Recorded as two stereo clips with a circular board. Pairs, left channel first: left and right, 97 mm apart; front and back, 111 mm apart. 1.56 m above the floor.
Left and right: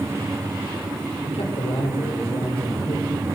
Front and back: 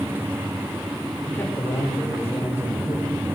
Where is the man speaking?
75° left, 6 m; by 3.2 s 60° left, 7.5 m.